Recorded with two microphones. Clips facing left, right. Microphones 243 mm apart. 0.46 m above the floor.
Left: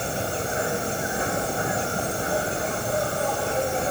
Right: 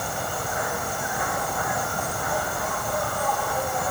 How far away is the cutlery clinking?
I don't hear cutlery clinking.